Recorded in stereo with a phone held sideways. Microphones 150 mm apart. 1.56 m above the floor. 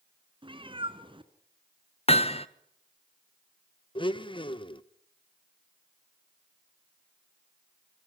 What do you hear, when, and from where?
0.4 s a cat meowing: 35° right (ahead or behind), 1.9 m
2.1 s hammering: 40° left (ahead or behind), 1.3 m
4.0 s a blender: 35° left (ahead or behind), 1.3 m